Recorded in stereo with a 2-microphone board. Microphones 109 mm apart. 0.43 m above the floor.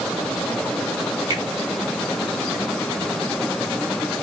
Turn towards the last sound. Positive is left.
turn(degrees=-45)  # may be behind; listen again after turning